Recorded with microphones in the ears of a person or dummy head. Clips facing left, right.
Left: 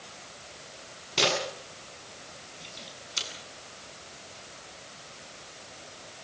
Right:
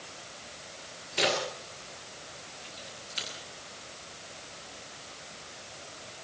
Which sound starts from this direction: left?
A camera shutter, at 1.2 s.